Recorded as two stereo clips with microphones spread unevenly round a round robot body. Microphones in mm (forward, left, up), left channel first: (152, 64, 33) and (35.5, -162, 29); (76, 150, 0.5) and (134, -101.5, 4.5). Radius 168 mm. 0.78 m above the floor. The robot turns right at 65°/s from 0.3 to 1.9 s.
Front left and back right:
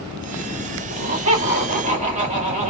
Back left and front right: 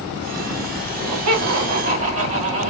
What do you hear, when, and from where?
0.9 s laughter: 125° right, 2.0 m; by 2.7 s 60° right, 2.0 m